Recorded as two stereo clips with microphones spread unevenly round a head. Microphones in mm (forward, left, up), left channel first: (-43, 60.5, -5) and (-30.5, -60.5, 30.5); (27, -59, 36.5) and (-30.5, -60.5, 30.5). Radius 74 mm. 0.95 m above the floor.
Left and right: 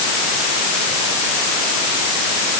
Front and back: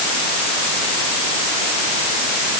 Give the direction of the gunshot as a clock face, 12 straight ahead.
No gunshot in this recording.